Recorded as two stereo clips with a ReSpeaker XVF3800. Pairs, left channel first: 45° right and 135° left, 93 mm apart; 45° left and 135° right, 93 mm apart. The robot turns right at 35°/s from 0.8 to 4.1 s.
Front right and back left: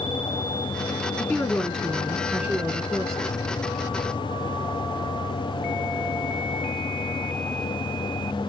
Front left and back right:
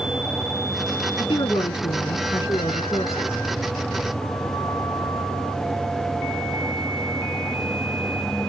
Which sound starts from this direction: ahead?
A woman speaking, at 1.2 s.